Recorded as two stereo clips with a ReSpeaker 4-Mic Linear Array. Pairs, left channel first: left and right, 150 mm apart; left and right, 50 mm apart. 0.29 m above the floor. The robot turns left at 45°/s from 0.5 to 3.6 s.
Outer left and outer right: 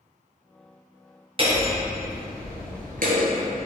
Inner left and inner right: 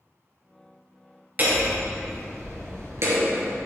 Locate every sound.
1.4 s hammering: 35° right, 2.5 m; by 3.6 s 135° right, 2.5 m